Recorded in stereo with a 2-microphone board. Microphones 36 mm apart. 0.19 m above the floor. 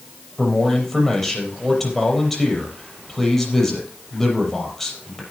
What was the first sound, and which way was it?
A man speaking, 5° left (ahead or behind).